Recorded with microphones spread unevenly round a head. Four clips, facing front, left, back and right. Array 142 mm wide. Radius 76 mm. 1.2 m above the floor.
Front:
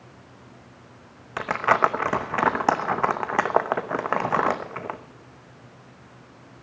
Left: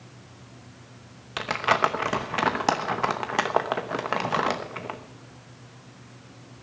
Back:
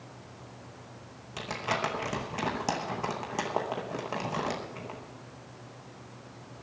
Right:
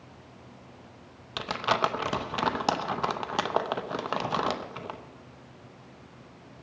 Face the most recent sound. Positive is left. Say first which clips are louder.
# left 4 dB, front 12 dB
turn(degrees=20)